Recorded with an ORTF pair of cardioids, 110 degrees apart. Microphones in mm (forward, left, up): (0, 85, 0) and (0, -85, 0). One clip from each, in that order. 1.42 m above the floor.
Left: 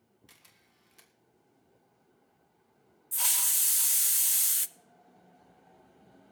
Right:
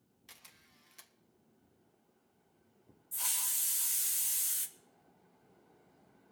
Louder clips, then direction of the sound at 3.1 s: Left 7 dB; 40° left.